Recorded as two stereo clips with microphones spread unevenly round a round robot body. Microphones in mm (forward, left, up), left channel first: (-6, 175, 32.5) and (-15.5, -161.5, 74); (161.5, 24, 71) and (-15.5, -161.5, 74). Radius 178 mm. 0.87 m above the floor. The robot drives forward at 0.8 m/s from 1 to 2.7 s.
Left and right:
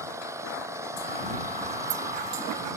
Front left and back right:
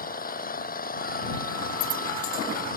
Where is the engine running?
10° right.